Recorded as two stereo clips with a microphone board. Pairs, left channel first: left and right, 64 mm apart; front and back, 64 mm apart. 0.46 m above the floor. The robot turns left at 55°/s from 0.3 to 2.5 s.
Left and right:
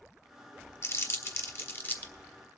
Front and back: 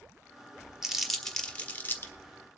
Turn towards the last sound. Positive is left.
turn(degrees=10)